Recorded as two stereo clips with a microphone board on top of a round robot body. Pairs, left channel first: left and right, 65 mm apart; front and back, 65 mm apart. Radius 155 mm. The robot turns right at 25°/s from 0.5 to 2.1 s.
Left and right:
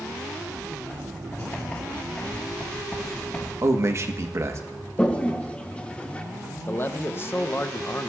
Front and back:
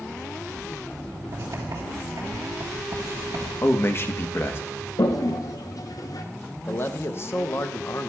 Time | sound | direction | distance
1.3 | writing | 140° left | 3 m
3.6 | a man speaking | 50° right | 1.3 m
5.0 | a toilet flushing | 15° left | 1.0 m
6.7 | a man speaking | 40° left | 0.9 m